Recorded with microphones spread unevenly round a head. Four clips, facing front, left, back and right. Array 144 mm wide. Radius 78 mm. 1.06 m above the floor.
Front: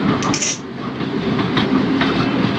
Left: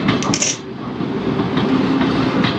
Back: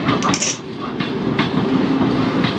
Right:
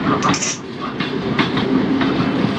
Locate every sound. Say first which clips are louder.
0.2 s tearing paper: right 2 dB, back 1 dB; 120° left, 1.2 m